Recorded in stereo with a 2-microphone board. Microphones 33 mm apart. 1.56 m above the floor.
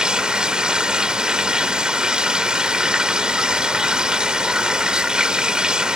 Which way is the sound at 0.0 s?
25° right (ahead or behind).